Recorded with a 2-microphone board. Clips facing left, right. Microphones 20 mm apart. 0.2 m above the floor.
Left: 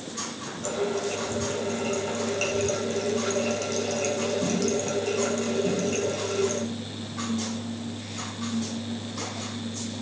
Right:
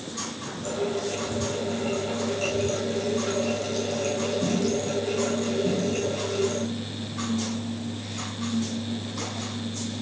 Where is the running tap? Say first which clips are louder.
Even; 45° left (ahead or behind), 8.5 m.